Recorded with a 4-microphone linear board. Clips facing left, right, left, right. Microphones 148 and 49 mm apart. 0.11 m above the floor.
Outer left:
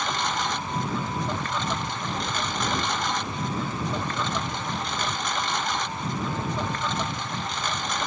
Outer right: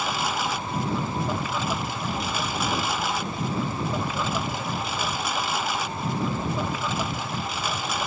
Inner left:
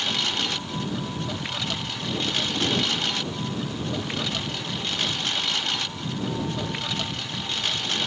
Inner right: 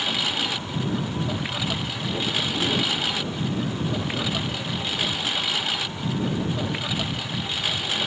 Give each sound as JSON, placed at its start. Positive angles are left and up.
{"t": 0.0, "sound": "a lawn mower", "side_deg": -5}